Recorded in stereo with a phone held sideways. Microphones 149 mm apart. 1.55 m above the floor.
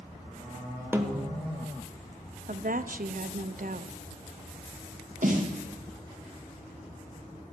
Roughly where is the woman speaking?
Right.